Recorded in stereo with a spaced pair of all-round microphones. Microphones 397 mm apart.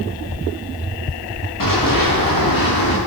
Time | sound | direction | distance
1.6 | running footsteps | 55° left (ahead or behind) | 8.5 m